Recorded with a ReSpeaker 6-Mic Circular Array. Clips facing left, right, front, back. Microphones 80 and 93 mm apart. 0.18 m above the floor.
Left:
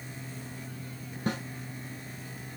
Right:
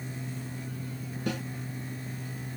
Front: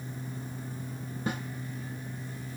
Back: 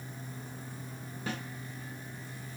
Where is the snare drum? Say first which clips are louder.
Left 1 dB, front 4 dB; 60° left, 1.3 m.